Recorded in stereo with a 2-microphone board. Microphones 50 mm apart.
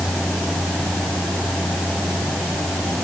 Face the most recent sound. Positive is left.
No sound to turn to.